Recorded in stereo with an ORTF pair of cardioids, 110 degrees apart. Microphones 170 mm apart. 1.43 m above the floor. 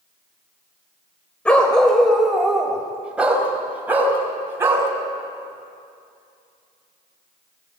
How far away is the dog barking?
About 3 m.